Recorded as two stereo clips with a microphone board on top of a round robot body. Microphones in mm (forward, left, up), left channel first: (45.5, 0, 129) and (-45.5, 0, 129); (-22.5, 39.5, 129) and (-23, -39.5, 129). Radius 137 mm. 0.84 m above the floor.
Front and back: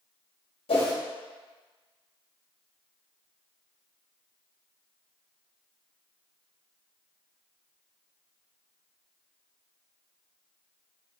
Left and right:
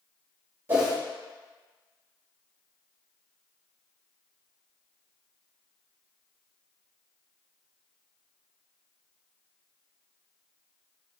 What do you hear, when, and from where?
0.7 s a whoosh: 25° right, 1.2 m